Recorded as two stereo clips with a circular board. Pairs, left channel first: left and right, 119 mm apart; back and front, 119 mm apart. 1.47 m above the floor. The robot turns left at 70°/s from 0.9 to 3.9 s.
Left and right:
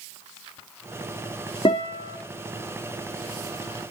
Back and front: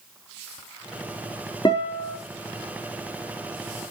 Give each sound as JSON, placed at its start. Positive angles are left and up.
{"t": 1.6, "sound": "a guitar", "azimuth_deg": 135, "distance_m": 3.5}